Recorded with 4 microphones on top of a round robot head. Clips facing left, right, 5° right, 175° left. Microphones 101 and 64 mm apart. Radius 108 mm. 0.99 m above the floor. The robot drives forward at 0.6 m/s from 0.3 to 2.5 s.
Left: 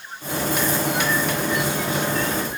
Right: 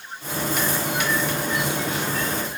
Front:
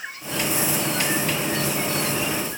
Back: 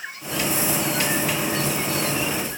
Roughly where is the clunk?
I don't hear a clunk.